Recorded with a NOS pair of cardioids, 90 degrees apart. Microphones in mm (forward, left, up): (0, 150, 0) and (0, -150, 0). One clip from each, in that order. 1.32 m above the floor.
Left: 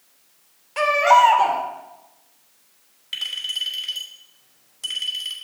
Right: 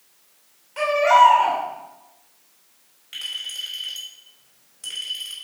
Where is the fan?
No fan in this recording.